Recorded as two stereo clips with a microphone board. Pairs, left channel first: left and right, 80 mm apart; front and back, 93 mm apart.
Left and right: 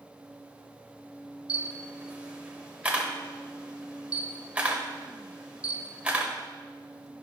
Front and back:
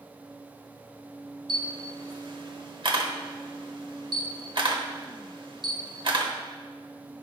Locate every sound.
1.5 s a camera shutter: 160° right, 1.2 m